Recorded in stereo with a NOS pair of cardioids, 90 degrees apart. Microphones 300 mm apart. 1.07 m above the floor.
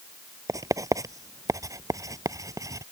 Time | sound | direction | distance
0.5 | writing | 10° right | ?